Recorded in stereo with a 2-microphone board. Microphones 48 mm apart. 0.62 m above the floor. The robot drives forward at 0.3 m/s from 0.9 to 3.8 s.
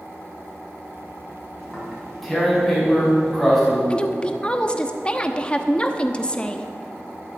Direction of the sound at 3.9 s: 20° left (ahead or behind).